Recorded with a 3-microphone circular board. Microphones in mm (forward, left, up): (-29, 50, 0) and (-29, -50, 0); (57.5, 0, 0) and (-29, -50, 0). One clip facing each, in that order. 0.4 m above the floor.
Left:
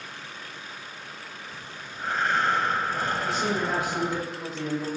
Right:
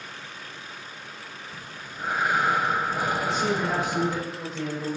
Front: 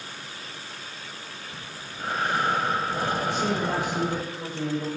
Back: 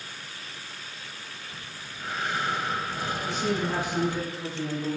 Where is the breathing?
10° right, 0.7 m.